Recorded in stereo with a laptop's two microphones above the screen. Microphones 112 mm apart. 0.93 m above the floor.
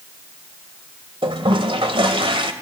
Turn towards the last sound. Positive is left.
turn(degrees=-55)  # may be behind; listen again after turning